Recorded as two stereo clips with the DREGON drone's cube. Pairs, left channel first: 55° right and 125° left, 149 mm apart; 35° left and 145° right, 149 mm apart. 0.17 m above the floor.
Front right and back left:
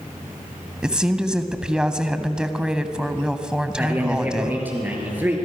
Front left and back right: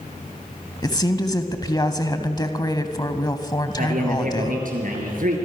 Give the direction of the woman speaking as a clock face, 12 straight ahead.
10 o'clock.